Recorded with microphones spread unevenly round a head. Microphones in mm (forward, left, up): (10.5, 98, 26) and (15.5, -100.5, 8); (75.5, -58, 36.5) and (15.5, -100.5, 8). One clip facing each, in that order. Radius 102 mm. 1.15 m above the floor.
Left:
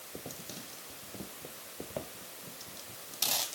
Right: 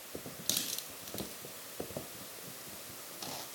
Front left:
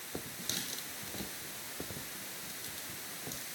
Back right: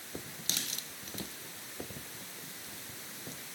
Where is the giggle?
I don't hear a giggle.